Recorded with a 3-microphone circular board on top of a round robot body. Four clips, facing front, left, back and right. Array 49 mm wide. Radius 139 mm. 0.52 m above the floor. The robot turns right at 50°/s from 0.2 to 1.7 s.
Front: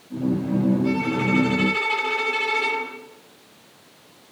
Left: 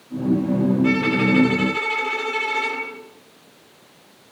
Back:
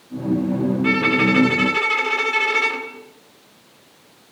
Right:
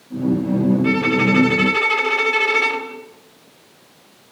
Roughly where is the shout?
I don't hear a shout.